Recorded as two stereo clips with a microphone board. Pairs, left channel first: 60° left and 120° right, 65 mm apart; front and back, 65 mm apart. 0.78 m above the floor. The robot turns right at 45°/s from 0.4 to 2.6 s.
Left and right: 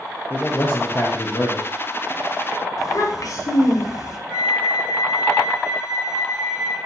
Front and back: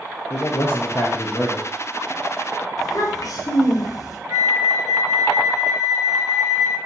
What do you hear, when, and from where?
0.3 s a man speaking: 5° left, 0.5 m; by 1.7 s 60° left, 0.5 m
2.8 s a child speaking: 30° left, 0.7 m
4.3 s a flute: 115° left, 2 m